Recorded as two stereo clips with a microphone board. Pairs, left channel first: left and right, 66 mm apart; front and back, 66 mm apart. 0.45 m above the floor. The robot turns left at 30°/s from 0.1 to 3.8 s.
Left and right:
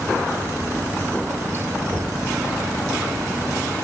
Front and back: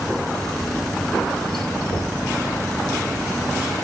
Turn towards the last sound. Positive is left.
turn(degrees=-65)